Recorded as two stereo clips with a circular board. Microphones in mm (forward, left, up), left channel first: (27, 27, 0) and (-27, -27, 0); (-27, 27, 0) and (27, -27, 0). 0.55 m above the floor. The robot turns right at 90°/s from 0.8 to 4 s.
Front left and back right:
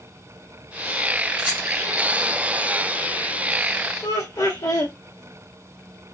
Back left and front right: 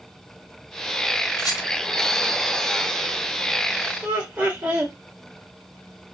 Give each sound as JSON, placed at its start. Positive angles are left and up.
{"t": 1.4, "sound": "a rattle", "azimuth_deg": 150, "distance_m": 2.5}
{"t": 4.0, "sound": "laughter", "azimuth_deg": 25, "distance_m": 1.6}